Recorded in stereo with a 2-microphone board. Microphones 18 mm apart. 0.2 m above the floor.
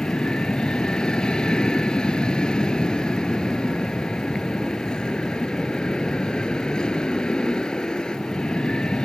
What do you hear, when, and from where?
0.0 s an aircraft: 55° left (ahead or behind)